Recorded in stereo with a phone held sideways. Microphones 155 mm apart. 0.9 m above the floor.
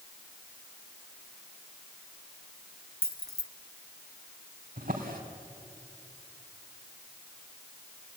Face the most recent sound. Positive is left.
turn(degrees=-70)  # may be behind; listen again after turning